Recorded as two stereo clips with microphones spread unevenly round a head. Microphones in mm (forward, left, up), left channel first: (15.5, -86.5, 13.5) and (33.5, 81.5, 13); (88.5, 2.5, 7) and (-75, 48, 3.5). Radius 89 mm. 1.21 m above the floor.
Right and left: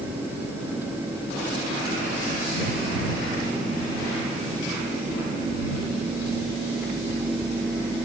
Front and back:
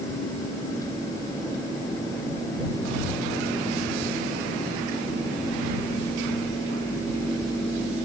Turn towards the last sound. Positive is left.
No sound to turn to.